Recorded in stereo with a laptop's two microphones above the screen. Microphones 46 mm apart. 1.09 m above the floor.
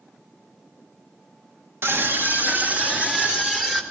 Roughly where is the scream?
Right.